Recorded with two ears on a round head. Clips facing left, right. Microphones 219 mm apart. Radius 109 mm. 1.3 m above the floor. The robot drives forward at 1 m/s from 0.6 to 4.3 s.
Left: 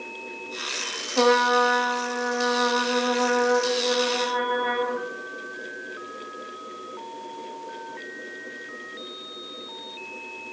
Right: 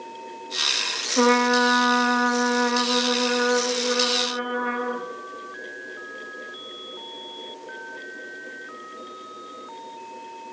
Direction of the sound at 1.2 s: 30° right (ahead or behind).